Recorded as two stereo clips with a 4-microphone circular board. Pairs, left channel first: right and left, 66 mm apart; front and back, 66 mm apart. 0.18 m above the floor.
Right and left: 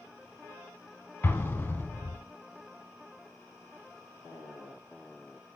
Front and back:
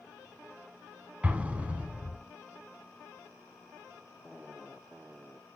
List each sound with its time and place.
1.2 s an explosion: 125° right, 1.1 m